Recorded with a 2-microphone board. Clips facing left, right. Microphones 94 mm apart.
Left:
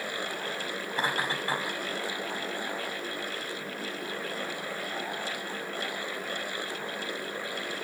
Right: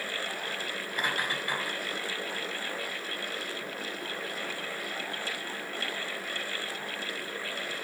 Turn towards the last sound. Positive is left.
turn(degrees=25)  # may be behind; listen again after turning